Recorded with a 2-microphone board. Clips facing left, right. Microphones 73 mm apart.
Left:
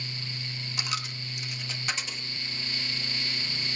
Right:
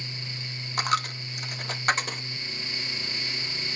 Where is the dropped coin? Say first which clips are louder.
Right 10 dB; 45° right (ahead or behind), 0.9 m.